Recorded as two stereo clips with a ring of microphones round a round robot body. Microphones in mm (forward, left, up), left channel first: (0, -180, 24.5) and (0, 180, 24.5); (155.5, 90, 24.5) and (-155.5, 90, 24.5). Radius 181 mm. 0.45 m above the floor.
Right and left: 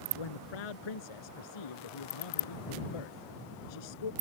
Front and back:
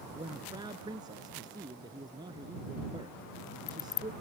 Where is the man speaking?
100° right.